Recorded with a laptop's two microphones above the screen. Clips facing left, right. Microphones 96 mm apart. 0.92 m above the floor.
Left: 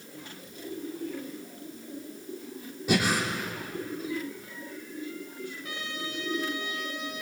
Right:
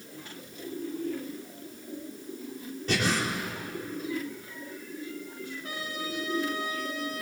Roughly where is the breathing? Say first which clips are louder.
Left 2 dB; centre.